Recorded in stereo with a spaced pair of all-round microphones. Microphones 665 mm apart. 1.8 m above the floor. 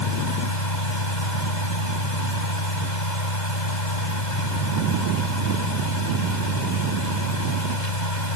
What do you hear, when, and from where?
0.0 s a fan: 90° left